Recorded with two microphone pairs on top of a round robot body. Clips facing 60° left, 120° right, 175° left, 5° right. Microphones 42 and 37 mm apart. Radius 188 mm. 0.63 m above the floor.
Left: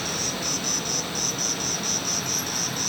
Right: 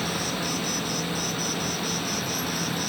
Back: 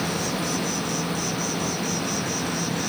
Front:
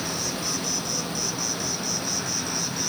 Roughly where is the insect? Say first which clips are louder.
Right 1 dB, back 4 dB; behind.